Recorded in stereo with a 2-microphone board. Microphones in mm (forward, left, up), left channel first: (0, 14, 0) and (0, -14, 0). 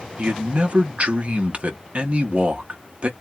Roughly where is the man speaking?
Right.